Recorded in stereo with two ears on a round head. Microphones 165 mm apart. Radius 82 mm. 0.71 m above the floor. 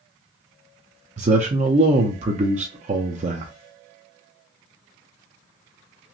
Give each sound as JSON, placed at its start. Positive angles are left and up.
{"t": 1.2, "sound": "a man speaking", "side_deg": -40, "distance_m": 0.6}